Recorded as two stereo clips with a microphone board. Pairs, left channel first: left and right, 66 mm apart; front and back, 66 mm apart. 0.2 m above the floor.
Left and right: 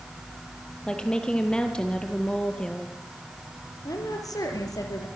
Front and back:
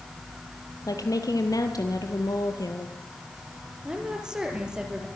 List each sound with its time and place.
0.9 s a woman speaking: 15° left, 4.5 m
3.9 s a woman speaking: 100° left, 5.5 m